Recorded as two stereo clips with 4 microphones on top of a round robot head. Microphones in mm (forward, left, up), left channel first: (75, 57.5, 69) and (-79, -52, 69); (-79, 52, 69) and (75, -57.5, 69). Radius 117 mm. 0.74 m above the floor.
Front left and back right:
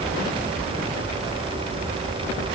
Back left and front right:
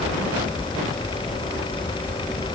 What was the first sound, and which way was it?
Only background noise.